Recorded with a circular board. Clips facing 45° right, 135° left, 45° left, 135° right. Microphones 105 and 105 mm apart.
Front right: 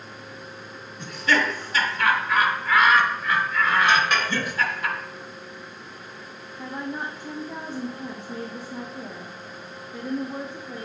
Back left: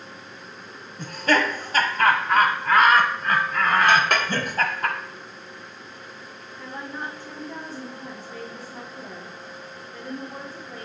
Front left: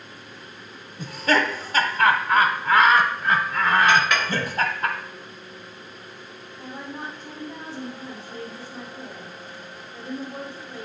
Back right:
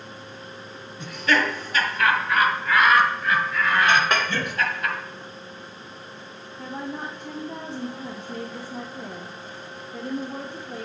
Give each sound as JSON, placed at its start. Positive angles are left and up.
{"t": 1.0, "sound": "laughter", "azimuth_deg": 95, "distance_m": 0.9}
{"t": 3.9, "sound": "a clink", "azimuth_deg": 170, "distance_m": 1.1}
{"t": 6.6, "sound": "a woman speaking", "azimuth_deg": -120, "distance_m": 0.8}